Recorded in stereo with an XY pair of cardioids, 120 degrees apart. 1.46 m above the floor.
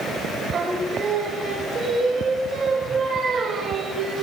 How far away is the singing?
About 3.5 m.